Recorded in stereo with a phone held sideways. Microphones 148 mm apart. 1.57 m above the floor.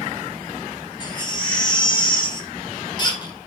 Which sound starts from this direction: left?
A baby crying, at 1.0 s.